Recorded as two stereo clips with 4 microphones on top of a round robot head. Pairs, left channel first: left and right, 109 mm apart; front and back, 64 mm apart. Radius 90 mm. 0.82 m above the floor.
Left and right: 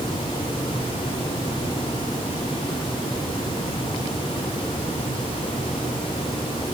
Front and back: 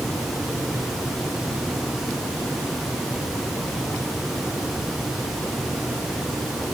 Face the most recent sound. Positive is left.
No sound to turn to.